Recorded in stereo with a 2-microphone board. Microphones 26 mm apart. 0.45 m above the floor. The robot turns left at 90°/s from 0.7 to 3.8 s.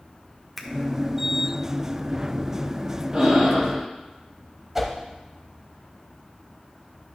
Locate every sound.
0.6 s a finger snap: centre (ahead or behind), 1.0 m
3.1 s breathing: 30° right, 2.5 m; by 3.8 s 90° right, 2.5 m
4.8 s a whoosh: 15° right (ahead or behind), 1.2 m